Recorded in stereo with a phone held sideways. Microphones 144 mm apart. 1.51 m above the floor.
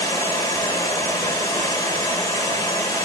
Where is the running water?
25° left (ahead or behind), 1.7 m.